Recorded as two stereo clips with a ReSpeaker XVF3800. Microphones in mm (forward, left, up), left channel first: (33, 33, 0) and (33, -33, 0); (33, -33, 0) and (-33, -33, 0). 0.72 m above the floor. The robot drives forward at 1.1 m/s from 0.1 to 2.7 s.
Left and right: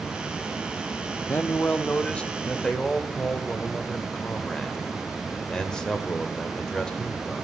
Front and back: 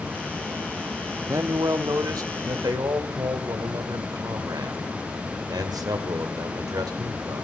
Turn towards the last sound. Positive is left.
turn(degrees=170)